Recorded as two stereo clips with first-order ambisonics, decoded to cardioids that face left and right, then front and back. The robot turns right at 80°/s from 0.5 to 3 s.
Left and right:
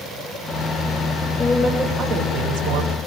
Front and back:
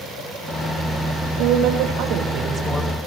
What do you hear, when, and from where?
1.4 s a woman speaking: 155° left, 8 m; by 3.0 s 80° right, 8 m